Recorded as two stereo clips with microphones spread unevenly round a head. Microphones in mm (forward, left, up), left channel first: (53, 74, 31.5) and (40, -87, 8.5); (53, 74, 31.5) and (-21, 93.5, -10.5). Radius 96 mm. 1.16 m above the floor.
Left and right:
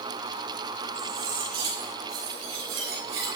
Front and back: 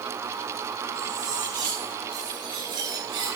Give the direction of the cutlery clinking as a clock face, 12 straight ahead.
5 o'clock.